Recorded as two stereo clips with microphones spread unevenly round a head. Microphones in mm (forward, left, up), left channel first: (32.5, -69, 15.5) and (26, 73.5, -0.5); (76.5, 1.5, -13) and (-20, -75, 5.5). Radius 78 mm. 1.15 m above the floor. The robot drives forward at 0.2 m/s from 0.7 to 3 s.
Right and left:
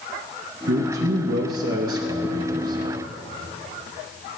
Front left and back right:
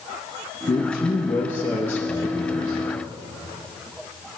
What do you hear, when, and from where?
0.7 s a man speaking: 105° left, 0.8 m; by 3.0 s 130° left, 1.1 m